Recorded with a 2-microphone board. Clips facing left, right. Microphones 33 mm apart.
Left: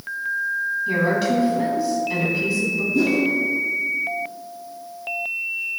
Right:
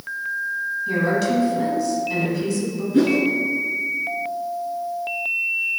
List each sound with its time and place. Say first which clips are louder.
0.9 s a woman speaking: even; 15° left (ahead or behind), 1.6 m
2.9 s a whoosh: right 3 dB; 60° right (ahead or behind), 0.9 m